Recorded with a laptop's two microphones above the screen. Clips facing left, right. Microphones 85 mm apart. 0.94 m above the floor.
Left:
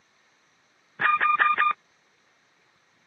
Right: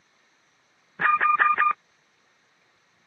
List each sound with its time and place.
1.0 s an alarm: 10° right (ahead or behind)